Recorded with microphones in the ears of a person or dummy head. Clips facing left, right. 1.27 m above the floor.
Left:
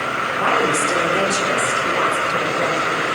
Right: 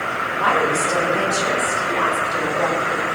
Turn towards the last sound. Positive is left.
turn(degrees=80)